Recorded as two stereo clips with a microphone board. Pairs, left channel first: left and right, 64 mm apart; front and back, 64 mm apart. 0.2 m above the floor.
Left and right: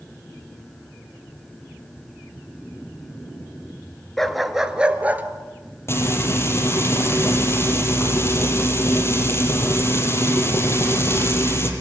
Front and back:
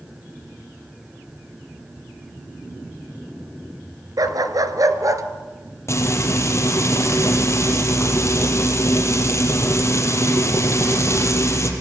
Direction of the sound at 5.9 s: 45° left.